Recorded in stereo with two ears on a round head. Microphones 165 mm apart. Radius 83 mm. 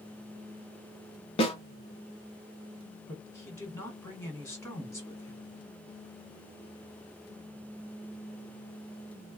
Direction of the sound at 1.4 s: 30° left (ahead or behind).